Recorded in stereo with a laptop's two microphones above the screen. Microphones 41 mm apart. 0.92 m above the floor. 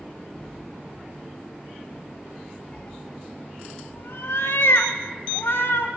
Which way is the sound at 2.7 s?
20° left (ahead or behind).